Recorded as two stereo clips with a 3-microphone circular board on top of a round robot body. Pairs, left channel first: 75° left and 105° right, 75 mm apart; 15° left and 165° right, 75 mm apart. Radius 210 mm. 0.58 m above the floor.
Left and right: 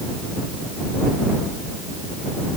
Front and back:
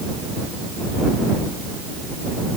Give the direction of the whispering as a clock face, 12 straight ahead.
I don't hear whispering.